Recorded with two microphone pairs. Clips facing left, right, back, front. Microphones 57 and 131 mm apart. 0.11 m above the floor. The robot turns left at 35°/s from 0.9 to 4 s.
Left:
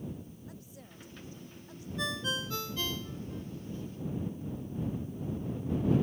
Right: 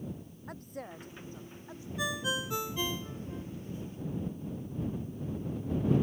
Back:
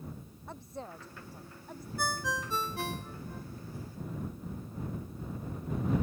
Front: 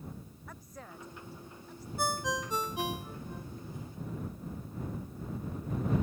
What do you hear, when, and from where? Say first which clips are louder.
0.5 s a woman speaking: right 7 dB, back 7 dB; 120° right; by 1.9 s 155° right
2.0 s a ringtone: right 1 dB, front 2 dB; 25° right; by 3.5 s 80° right